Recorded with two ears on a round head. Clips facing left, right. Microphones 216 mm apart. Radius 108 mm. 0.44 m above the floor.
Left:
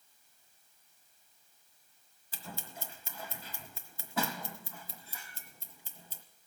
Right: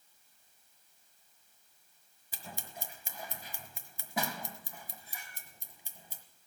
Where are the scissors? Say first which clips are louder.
Left 1 dB; 15° right (ahead or behind), 1.3 m.